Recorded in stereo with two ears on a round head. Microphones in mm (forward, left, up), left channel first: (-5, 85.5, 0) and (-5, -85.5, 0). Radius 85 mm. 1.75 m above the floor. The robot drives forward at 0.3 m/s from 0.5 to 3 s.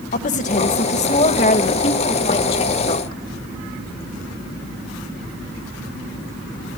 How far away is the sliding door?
No sliding door in this recording.